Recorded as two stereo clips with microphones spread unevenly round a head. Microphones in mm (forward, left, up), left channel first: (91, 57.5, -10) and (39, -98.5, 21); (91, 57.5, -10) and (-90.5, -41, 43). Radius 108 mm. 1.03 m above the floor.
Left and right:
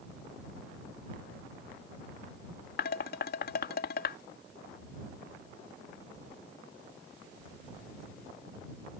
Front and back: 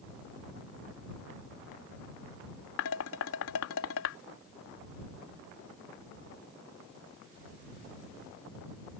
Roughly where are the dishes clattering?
Ahead left.